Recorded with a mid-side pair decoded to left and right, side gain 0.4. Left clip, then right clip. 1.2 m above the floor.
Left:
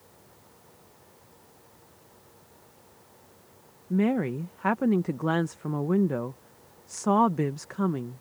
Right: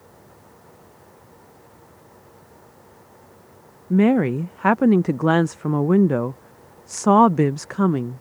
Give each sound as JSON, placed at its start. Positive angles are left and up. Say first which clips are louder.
{"t": 0.0, "sound": "a fan", "louder": "right 7 dB", "azimuth_deg": -55}
{"t": 3.9, "sound": "a woman speaking", "louder": "right 8 dB", "azimuth_deg": -60}